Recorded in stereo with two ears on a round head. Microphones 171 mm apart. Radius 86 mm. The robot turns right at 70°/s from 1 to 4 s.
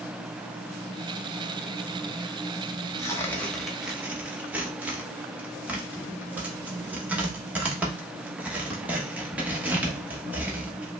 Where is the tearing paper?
15° left (ahead or behind), 1.0 m; by 10.9 s 5° right (ahead or behind), 1.0 m.